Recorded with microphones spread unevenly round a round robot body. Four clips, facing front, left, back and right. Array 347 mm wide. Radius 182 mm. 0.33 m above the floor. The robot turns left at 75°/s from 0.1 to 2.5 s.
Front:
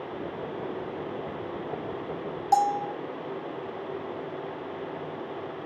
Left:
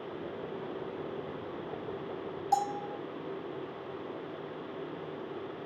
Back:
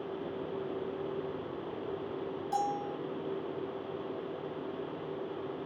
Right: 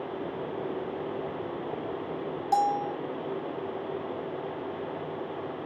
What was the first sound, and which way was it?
A bell, 25° right.